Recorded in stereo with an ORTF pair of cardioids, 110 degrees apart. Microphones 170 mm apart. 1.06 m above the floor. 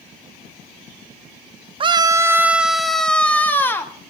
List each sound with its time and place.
1.8 s a scream: 30° right, 0.7 m; by 3.9 s 15° left, 1.5 m